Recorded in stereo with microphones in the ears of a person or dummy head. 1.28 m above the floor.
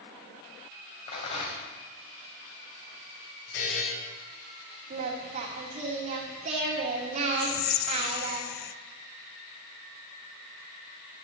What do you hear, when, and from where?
1.1 s a rattle: 35° left (ahead or behind), 2.5 m
3.5 s a buzzer: 85° left, 7 m
4.9 s singing: 40° right (ahead or behind), 2.0 m
7.4 s whispering: 45° left (ahead or behind), 0.7 m